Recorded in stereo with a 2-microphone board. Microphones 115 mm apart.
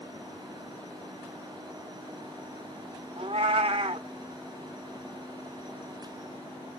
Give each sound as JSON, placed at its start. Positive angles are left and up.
{"t": 3.2, "sound": "a cat meowing", "side_deg": -60, "distance_m": 0.7}